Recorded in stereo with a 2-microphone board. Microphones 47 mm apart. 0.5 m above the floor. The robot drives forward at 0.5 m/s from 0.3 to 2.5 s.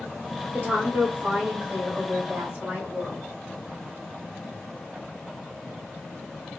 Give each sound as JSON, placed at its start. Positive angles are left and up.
{"t": 0.5, "sound": "a woman speaking", "side_deg": -50, "distance_m": 1.9}